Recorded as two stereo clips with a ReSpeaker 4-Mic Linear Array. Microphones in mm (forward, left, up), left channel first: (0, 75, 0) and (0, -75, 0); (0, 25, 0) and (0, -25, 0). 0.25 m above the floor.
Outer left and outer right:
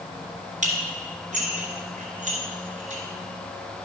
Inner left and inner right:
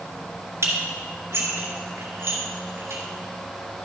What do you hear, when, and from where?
0.6 s dishes clattering: 55° right (ahead or behind), 2 m